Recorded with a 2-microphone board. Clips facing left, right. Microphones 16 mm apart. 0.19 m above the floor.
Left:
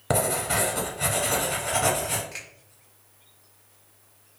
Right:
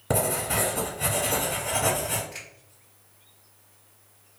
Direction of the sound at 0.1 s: 30° left (ahead or behind).